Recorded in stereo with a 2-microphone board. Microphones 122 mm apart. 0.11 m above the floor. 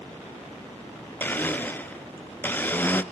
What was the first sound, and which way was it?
A blender, 15° left (ahead or behind).